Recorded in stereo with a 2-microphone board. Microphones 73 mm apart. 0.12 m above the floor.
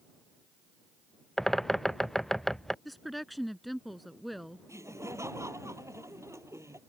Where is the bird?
5° left (ahead or behind).